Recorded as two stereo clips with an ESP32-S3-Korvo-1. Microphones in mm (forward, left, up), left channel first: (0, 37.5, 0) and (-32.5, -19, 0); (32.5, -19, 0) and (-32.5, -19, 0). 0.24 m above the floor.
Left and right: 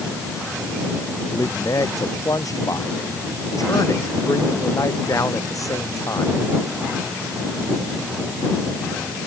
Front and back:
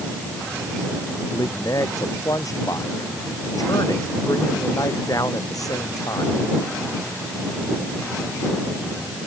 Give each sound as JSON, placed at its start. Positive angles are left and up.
{"t": 1.3, "sound": "a man speaking", "azimuth_deg": 30}